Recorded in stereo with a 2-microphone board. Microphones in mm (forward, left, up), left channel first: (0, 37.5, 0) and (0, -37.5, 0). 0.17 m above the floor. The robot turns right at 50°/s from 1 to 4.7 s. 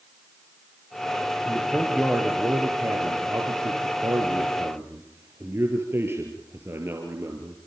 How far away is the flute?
I don't hear a flute.